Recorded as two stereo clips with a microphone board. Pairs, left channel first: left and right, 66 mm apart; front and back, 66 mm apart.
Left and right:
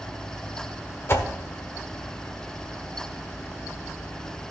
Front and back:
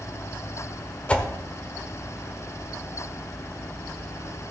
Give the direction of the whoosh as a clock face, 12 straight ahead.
10 o'clock.